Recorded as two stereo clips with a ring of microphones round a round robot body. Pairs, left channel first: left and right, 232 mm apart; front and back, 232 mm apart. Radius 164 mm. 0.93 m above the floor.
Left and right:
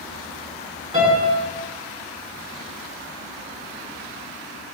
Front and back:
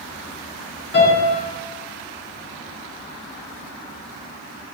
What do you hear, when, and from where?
0.9 s a piano: 25° right, 1.3 m